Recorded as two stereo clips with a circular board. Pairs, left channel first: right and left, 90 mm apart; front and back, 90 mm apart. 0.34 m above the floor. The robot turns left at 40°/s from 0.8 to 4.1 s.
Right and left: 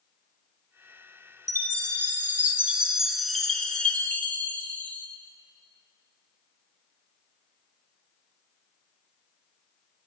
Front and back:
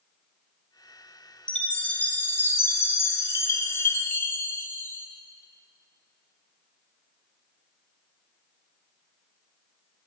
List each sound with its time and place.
1.5 s a chime: 70° left, 0.7 m; by 5.1 s 35° right, 0.7 m